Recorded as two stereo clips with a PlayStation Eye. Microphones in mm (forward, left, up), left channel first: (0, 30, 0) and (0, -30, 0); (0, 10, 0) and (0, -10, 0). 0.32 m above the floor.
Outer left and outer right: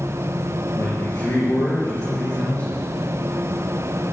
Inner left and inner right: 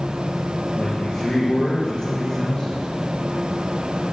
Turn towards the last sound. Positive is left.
turn(degrees=30)  # may be behind; listen again after turning